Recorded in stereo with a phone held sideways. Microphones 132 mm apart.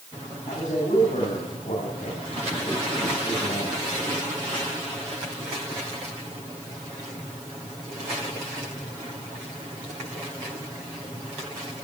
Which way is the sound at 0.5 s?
75° left (ahead or behind).